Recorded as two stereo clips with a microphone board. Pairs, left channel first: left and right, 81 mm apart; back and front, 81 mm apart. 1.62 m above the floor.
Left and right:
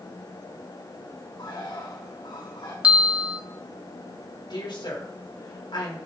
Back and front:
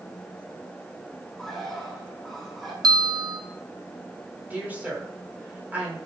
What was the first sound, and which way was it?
A bird, 90° left.